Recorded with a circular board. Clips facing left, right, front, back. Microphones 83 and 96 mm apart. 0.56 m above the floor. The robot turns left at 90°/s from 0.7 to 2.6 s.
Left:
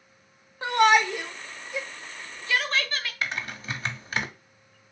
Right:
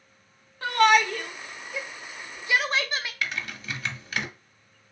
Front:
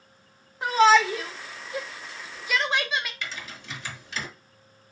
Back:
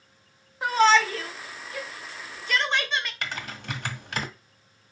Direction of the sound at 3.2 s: 145° left.